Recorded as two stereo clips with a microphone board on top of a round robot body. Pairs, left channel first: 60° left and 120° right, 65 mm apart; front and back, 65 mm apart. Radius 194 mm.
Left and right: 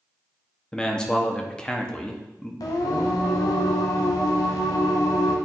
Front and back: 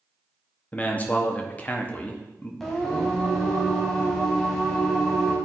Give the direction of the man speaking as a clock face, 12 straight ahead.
12 o'clock.